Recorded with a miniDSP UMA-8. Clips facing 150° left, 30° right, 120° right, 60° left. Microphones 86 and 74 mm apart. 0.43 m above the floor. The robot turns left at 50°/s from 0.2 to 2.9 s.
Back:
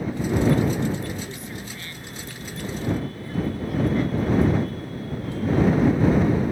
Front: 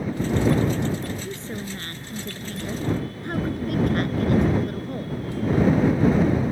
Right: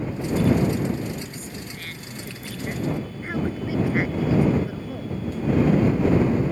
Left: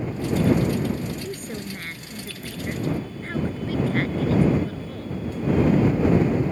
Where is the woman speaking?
35° left; by 5.2 s 45° right.